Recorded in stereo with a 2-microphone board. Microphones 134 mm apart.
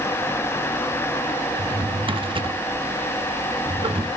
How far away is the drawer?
About 0.9 m.